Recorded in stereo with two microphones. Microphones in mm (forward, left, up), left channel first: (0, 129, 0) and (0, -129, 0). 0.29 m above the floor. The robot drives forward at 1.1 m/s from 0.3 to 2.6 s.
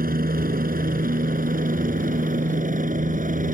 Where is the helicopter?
35° right (ahead or behind); by 3.5 s 30° right (ahead or behind).